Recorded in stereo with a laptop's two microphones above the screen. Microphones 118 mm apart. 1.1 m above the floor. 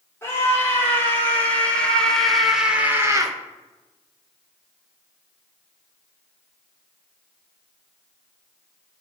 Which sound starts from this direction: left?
A scream, at 0.2 s.